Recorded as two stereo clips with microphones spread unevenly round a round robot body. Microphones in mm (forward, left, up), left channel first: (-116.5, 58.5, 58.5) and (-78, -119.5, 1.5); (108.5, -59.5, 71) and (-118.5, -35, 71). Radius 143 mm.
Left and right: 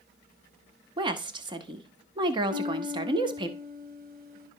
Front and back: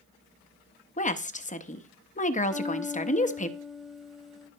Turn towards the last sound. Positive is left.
turn(degrees=-100)